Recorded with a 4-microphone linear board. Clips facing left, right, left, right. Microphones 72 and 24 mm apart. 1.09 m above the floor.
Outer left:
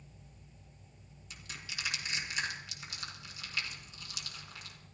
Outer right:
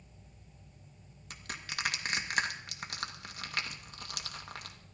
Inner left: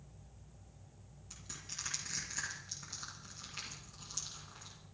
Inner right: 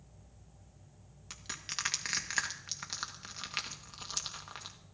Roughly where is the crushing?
Right.